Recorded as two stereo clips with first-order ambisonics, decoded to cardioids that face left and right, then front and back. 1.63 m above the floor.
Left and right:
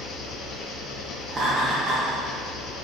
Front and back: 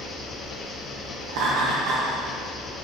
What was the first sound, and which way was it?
An engine running, 65° left.